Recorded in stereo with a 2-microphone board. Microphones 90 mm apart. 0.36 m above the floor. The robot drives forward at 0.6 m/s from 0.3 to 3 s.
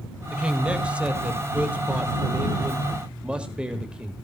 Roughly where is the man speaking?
Centre.